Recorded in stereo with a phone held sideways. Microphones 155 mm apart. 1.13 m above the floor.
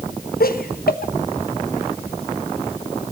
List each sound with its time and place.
0.4 s laughter: 75° left (ahead or behind), 1.1 m